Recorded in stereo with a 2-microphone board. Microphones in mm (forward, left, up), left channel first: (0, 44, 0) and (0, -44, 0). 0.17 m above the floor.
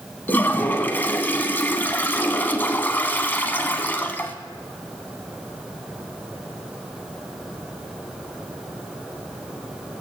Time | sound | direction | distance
0.3 | a toilet flushing | 25° left (ahead or behind) | 0.8 m